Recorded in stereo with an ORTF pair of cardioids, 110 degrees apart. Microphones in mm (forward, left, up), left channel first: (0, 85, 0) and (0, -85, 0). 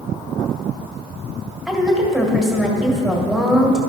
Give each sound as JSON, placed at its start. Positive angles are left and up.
{"t": 1.7, "sound": "a woman speaking", "azimuth_deg": 0, "distance_m": 1.8}